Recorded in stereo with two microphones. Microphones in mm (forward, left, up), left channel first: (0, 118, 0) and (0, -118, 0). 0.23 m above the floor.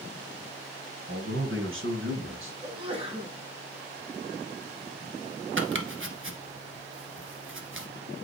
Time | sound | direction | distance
1.1 | a man speaking | 50° right (ahead or behind) | 2.5 m
2.6 | a sneeze | 25° right (ahead or behind) | 2.5 m
5.6 | chopping | 60° right (ahead or behind) | 1.1 m